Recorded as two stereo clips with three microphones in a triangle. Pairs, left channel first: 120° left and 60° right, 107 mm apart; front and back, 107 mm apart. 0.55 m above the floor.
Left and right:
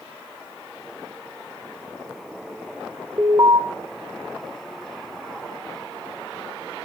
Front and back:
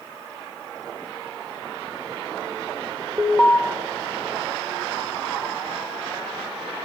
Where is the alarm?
100° right, 2.5 m.